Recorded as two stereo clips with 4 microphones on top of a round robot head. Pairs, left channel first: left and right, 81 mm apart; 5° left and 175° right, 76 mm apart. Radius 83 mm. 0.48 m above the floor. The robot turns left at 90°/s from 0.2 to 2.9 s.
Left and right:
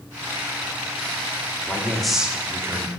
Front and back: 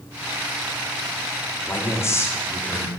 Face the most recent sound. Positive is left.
turn(degrees=-75)